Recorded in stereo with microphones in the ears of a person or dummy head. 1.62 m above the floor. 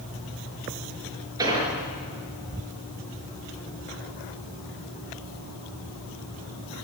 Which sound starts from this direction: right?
An explosion, at 1.4 s.